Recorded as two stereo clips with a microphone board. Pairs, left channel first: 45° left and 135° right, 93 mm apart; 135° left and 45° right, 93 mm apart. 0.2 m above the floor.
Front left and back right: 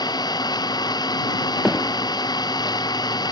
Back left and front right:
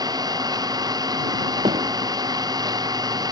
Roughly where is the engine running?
Ahead.